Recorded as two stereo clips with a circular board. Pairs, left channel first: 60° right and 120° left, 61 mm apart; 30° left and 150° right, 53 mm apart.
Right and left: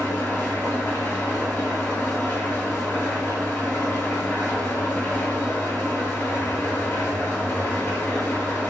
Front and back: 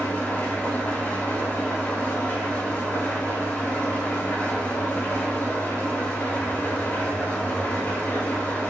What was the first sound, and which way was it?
An engine running, 20° right.